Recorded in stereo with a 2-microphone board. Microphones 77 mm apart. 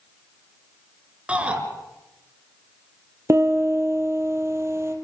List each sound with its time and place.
1.3 s a shout: 15° right (ahead or behind), 4 m
3.3 s a piano: 35° right (ahead or behind), 3 m